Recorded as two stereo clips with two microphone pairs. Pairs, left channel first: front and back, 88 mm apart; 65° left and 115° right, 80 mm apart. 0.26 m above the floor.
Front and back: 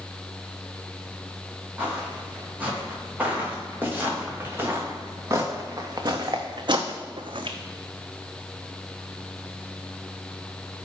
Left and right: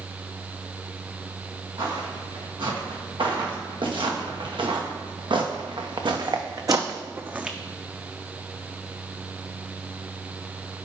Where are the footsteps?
105° right, 3 m; by 7.6 s 165° left, 0.7 m.